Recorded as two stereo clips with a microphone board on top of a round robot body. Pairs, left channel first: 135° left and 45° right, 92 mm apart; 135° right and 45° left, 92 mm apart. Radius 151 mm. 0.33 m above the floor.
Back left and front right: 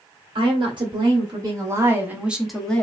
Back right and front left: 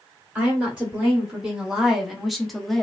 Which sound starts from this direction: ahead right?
A woman speaking, at 0.3 s.